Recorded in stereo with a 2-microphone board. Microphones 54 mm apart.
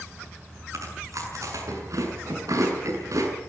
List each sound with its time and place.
0.7 s chewing: 80° right, 6.5 m